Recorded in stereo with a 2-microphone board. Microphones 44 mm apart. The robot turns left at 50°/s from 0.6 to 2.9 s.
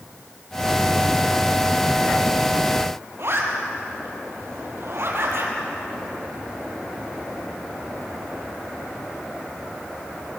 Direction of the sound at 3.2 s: 60° right (ahead or behind).